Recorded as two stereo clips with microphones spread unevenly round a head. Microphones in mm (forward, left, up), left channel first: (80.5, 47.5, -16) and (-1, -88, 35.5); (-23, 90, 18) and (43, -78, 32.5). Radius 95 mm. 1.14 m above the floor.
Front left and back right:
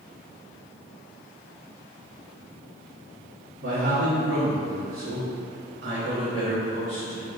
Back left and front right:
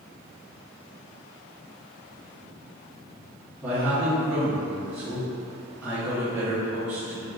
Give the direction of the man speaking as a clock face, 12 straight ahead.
5 o'clock.